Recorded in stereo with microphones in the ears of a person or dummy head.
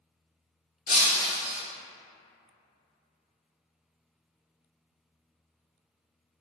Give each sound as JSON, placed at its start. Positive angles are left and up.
{"t": 0.9, "sound": "breaking glass", "side_deg": 50, "distance_m": 1.4}